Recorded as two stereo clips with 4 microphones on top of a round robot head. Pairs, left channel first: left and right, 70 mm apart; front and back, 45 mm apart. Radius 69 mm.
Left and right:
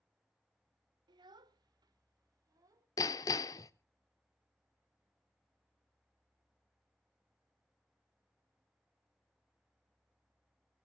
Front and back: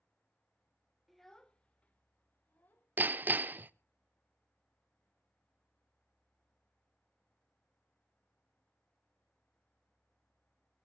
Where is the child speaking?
90° right, 0.9 m; by 2.9 s 55° right, 2.5 m.